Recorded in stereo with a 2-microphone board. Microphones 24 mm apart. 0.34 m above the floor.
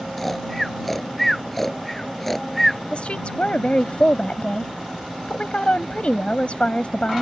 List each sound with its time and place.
0.2 s snoring: 10° left (ahead or behind)
2.9 s a woman speaking: 55° left (ahead or behind)